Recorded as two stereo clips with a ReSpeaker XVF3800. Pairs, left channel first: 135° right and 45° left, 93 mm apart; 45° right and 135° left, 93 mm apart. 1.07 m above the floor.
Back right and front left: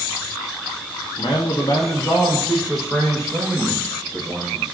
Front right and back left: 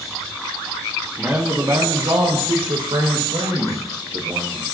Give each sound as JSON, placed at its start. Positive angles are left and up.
{"t": 1.2, "sound": "a man speaking", "azimuth_deg": -150, "distance_m": 0.9}